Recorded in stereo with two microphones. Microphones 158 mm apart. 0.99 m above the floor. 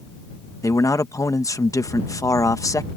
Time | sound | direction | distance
0.6 | a man speaking | 20° left (ahead or behind) | ?